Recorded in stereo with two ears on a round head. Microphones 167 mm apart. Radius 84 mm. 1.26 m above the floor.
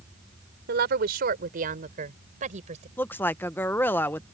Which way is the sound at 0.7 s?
60° right (ahead or behind).